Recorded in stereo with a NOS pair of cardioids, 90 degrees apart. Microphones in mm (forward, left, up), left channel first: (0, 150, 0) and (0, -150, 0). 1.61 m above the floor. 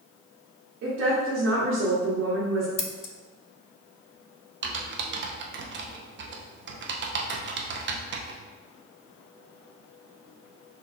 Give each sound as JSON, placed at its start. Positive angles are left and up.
{"t": 0.8, "sound": "a woman speaking", "azimuth_deg": -55, "distance_m": 1.3}
{"t": 2.8, "sound": "scissors", "azimuth_deg": 55, "distance_m": 0.6}
{"t": 4.6, "sound": "typing on a keyboard", "azimuth_deg": -40, "distance_m": 0.7}